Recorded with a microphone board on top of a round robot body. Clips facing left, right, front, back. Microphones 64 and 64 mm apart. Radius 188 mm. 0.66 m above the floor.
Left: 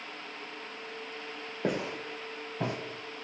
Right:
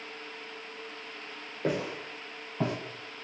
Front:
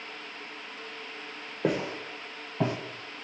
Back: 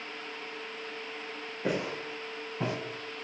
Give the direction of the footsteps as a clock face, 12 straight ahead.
11 o'clock.